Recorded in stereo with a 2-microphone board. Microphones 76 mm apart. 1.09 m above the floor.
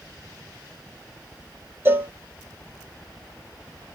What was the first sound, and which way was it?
A cowbell, 30° right (ahead or behind).